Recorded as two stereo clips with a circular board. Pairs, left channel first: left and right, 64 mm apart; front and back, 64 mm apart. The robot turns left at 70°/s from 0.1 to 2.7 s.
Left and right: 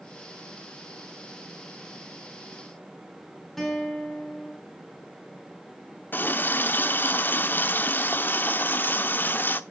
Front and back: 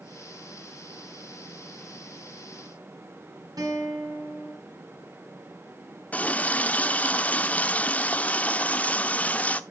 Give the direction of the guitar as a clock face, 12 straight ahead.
6 o'clock.